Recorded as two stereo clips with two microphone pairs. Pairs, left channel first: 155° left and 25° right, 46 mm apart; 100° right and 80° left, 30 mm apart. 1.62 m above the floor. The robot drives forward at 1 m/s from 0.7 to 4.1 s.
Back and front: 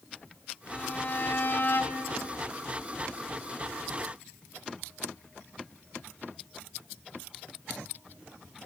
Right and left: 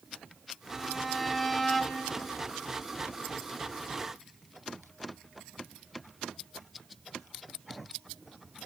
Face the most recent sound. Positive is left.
turn(degrees=175)